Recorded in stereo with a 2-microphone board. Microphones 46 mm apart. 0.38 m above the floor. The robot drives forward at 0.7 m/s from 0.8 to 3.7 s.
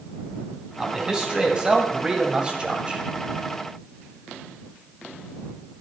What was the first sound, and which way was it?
A man speaking, 15° right (ahead or behind).